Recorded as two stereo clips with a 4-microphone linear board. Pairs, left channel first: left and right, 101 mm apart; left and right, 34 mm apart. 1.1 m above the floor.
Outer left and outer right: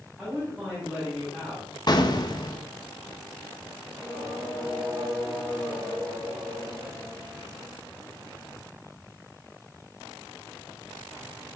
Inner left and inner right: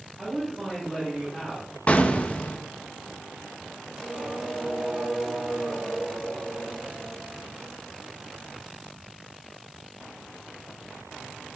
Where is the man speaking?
Centre (ahead or behind), 7 m.